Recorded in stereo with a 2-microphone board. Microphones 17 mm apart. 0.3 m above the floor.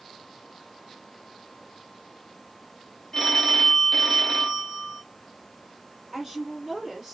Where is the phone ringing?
25° left (ahead or behind), 0.8 m.